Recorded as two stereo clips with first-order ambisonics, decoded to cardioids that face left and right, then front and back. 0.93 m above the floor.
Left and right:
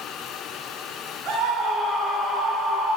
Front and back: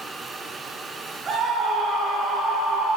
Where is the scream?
130° right, 0.7 m; by 3.0 s 170° left, 1.8 m.